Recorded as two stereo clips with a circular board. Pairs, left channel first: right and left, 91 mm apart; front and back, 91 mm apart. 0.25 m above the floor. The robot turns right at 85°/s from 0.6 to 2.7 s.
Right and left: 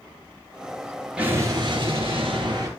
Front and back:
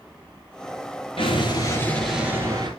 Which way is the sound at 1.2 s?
10° left.